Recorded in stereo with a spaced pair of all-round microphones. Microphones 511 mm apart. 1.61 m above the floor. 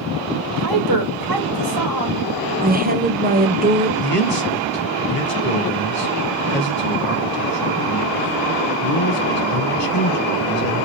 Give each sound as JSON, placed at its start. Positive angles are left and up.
{"t": 0.6, "sound": "a woman speaking", "side_deg": -40, "distance_m": 2.5}
{"t": 2.6, "sound": "a woman speaking", "side_deg": -15, "distance_m": 0.8}
{"t": 4.0, "sound": "a man speaking", "side_deg": 70, "distance_m": 1.5}